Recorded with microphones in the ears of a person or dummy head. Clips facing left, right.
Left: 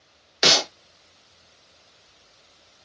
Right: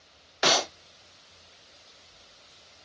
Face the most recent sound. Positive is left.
turn(degrees=35)  # may be behind; listen again after turning